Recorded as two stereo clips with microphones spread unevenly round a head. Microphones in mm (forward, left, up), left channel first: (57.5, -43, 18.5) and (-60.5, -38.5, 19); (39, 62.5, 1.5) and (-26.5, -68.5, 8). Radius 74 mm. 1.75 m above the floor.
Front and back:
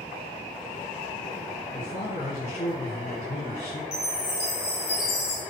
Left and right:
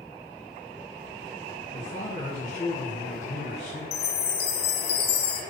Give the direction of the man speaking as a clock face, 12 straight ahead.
11 o'clock.